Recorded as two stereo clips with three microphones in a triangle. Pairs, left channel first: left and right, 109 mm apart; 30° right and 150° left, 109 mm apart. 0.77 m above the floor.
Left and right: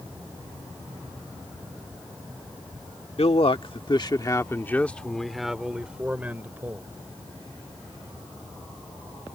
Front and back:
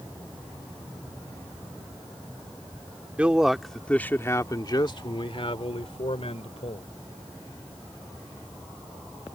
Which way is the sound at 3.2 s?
75° left.